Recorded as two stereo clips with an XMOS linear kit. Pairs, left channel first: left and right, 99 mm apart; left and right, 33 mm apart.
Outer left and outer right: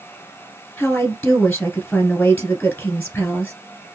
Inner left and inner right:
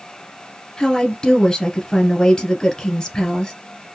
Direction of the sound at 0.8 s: 15° left (ahead or behind).